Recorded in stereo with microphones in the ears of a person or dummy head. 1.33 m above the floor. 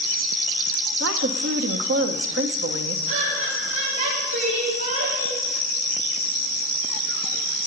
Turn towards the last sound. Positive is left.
turn(degrees=-60)  # may be behind; listen again after turning